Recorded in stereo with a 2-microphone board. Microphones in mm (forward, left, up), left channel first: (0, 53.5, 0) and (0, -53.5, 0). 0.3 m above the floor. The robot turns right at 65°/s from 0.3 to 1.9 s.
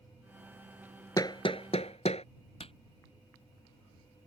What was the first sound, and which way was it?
Hammering, 35° left (ahead or behind).